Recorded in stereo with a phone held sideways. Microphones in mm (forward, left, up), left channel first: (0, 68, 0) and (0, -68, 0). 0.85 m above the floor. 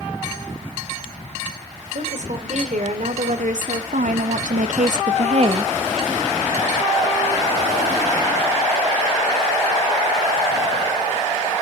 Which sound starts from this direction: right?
A woman speaking, at 1.9 s.